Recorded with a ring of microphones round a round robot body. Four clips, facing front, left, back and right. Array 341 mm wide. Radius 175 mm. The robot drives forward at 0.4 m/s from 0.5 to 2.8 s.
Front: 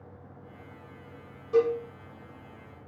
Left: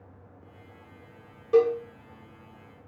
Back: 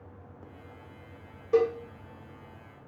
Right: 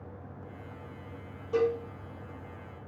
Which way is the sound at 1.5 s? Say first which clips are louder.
Left 6 dB, even; 150° left.